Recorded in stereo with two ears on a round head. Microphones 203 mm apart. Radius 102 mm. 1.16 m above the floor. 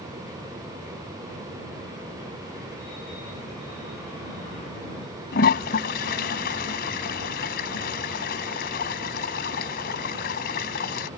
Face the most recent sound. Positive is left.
turn(degrees=45)  # may be behind; listen again after turning